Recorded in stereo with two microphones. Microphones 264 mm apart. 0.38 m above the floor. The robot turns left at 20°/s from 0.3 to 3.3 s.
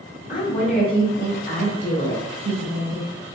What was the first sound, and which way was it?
A woman speaking, 145° left.